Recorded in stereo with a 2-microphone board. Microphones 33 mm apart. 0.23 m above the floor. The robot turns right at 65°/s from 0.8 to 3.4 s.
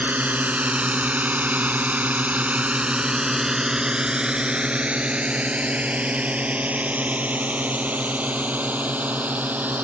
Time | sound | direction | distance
0.0 | a drone | 60° right (ahead or behind) | ?